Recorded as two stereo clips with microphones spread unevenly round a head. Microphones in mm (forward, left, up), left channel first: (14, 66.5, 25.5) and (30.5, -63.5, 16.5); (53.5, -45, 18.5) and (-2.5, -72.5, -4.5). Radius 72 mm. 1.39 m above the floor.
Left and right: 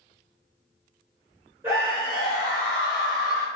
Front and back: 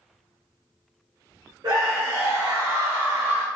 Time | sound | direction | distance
1.6 | a scream | 155° right | 1.7 m